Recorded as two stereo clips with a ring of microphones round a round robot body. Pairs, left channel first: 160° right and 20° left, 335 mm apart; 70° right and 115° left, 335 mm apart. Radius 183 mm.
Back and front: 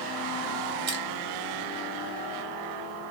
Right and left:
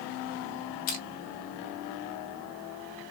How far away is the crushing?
About 1.5 m.